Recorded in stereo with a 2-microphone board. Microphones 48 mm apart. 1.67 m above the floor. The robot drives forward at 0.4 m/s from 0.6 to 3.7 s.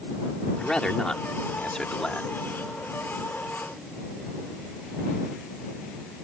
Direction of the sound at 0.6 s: 15° left (ahead or behind).